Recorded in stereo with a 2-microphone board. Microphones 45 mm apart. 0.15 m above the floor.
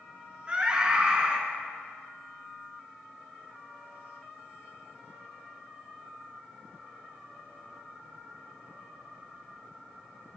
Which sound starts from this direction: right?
A scream, at 0.5 s.